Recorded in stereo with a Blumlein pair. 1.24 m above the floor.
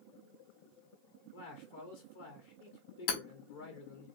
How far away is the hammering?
About 1.3 m.